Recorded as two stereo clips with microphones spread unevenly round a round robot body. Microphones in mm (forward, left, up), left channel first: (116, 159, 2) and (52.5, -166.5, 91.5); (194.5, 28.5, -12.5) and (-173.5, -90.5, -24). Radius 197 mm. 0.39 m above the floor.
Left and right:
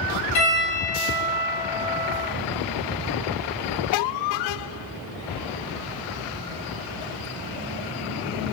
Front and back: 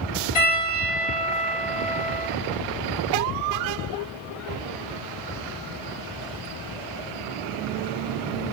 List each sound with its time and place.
0.3 s a piano: 110° left, 2 m